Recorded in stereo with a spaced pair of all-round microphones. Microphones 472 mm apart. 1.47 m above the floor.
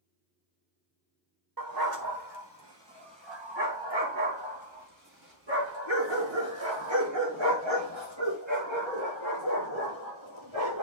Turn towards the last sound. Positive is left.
turn(degrees=-80)